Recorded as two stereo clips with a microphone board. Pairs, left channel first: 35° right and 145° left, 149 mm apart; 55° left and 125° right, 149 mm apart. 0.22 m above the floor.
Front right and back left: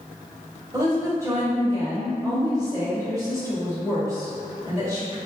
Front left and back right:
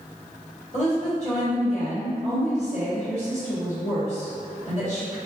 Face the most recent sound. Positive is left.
turn(degrees=85)